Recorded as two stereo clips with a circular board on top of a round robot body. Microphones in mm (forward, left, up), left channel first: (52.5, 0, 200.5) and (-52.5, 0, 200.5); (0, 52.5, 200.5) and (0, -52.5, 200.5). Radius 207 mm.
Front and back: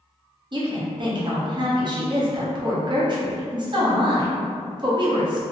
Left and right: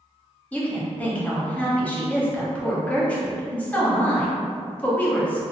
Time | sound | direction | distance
0.5 | a woman speaking | 165° left | 1.0 m